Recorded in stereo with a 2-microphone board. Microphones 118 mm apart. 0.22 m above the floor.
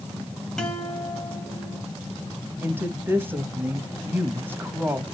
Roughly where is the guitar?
Centre.